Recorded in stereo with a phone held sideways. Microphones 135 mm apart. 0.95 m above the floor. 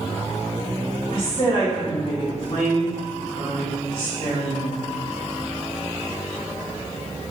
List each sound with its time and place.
1.1 s a woman speaking: 55° left (ahead or behind), 1.1 m